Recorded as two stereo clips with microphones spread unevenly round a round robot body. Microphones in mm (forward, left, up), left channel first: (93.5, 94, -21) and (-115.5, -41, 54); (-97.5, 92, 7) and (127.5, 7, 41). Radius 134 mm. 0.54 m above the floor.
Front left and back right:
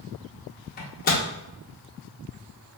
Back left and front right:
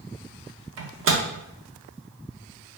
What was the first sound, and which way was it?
A microwave, 10° left.